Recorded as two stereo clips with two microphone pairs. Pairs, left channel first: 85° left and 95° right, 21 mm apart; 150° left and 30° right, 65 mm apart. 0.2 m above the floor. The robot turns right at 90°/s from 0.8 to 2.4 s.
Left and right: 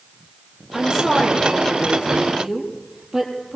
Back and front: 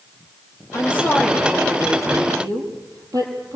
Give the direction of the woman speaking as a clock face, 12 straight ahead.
5 o'clock.